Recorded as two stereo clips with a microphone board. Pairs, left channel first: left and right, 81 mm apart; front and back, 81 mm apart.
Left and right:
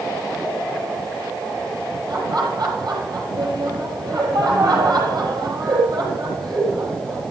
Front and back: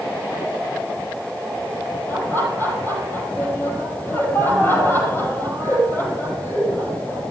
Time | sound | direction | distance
2.1 | laughter | 60° right | 5.5 m